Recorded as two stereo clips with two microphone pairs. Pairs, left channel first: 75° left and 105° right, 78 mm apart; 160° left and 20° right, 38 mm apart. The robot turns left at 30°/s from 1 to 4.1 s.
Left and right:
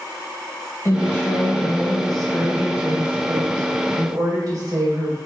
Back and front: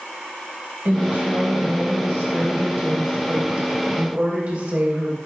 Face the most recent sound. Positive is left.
turn(degrees=-75)